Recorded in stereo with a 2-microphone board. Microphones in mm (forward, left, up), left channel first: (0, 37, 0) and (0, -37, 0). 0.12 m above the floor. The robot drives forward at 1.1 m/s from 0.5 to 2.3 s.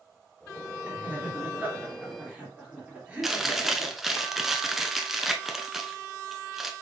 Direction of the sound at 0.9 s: 20° right (ahead or behind).